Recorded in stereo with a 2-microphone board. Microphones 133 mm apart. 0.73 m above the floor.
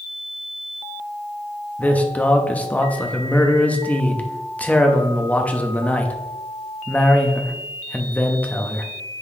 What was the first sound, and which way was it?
A man speaking, 10° left (ahead or behind).